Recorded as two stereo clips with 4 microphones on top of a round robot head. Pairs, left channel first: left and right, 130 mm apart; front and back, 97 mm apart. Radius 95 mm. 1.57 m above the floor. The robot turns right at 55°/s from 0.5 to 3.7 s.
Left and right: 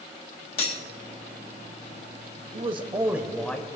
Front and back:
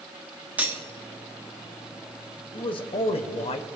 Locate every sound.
0.6 s cutlery clinking: 110° left, 0.8 m; by 0.8 s 125° left, 0.8 m
2.5 s a man speaking: 45° right, 0.6 m; by 3.6 s 15° left, 0.6 m